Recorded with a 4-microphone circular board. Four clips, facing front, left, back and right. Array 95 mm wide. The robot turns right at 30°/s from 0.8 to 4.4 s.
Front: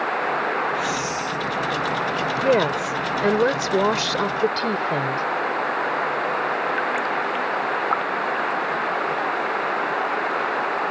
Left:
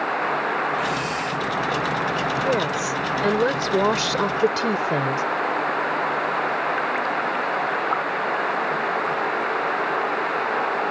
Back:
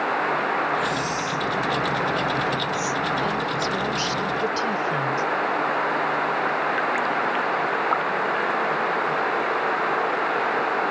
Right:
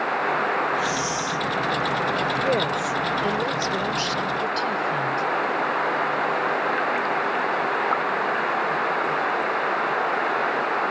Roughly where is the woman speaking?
Ahead.